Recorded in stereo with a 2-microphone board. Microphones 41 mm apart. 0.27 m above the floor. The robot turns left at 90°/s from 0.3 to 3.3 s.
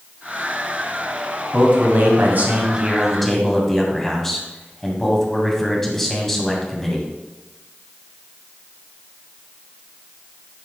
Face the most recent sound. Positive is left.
turn(degrees=170)